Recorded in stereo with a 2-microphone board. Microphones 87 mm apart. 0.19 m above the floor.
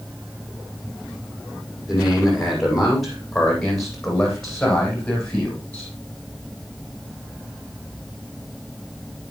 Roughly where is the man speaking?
Centre.